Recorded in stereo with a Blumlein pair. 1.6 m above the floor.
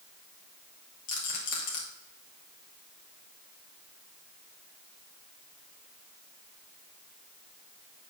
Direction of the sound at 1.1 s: 40° left.